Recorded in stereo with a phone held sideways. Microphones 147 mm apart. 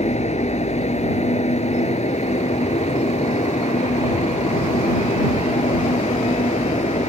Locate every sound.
0.0 s a fan: 50° left (ahead or behind)